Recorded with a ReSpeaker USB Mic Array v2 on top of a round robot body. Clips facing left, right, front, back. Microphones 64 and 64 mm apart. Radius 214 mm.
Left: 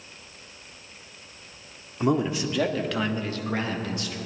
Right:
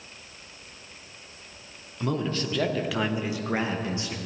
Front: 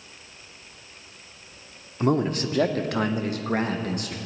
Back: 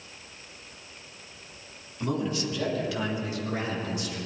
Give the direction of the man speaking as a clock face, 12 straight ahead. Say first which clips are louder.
Left 4 dB, front 6 dB; 11 o'clock.